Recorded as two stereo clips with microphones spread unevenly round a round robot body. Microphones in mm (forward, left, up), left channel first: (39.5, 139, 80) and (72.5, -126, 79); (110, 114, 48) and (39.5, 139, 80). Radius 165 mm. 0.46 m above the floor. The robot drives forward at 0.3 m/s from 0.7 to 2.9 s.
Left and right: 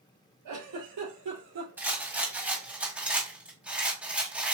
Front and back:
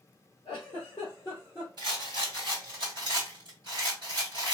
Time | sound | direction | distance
0.5 | a giggle | 85° right | 2.5 m
1.8 | a rattle | 165° right | 1.5 m